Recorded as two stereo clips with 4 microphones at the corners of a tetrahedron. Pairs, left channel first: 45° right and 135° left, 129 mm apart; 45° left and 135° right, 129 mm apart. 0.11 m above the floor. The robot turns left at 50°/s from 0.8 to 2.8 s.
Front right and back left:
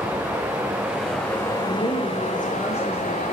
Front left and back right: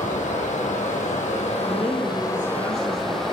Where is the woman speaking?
55° right, 2.5 m; by 3.2 s 115° right, 2.5 m.